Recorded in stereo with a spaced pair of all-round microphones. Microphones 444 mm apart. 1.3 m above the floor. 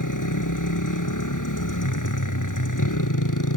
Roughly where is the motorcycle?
Left.